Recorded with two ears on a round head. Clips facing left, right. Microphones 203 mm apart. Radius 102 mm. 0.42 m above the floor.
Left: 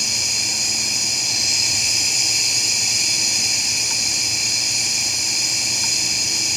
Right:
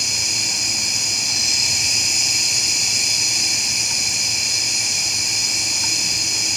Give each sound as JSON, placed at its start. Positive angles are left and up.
{"t": 0.0, "sound": "an insect", "side_deg": 70, "distance_m": 1.7}